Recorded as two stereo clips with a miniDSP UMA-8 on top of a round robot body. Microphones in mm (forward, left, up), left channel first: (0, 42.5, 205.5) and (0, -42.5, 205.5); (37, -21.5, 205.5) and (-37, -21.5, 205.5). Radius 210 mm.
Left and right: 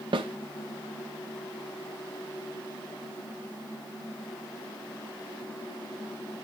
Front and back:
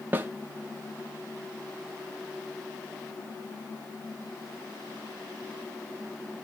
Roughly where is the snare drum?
Behind right.